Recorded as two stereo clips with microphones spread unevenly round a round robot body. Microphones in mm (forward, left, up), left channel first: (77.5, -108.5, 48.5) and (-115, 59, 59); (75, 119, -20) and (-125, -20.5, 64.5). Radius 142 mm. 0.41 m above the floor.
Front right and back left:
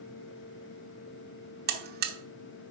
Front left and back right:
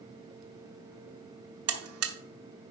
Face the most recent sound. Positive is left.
turn(degrees=180)